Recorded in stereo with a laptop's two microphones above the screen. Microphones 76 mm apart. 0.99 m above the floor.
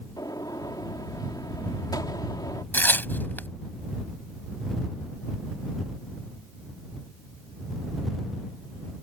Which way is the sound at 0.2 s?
60° left (ahead or behind).